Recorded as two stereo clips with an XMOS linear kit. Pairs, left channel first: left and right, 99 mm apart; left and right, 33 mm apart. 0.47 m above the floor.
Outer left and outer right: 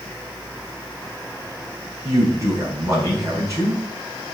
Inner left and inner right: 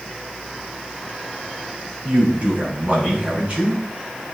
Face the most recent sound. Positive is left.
turn(degrees=-35)  # may be behind; listen again after turning